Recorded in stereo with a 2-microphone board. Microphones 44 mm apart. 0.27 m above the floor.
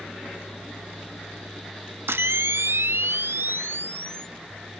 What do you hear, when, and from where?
2.1 s a camera shutter: 60° right (ahead or behind), 0.6 m